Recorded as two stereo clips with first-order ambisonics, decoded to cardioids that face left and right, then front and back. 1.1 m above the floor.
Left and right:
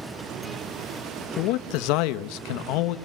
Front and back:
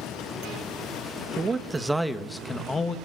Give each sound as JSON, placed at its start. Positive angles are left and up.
{"t": 1.4, "sound": "a man speaking", "azimuth_deg": 110, "distance_m": 1.4}